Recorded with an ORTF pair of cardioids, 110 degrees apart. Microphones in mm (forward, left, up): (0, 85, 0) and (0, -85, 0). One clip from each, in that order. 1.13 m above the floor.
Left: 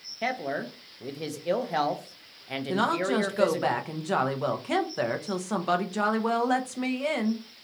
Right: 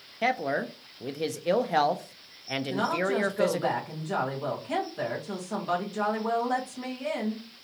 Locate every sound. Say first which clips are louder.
0.2 s a man speaking: right 3 dB; 10° right, 0.5 m
2.7 s a woman speaking: left 2 dB; 45° left, 0.9 m